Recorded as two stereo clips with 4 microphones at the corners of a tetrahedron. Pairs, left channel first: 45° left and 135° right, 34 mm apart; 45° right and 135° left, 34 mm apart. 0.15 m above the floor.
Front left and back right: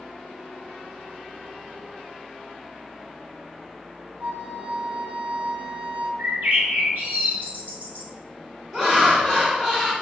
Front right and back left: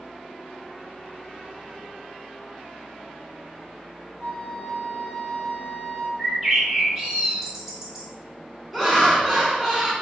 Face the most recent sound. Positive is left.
turn(degrees=-135)